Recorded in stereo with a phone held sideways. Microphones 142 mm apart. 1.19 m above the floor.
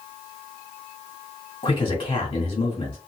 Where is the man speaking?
35° left (ahead or behind), 1.6 m.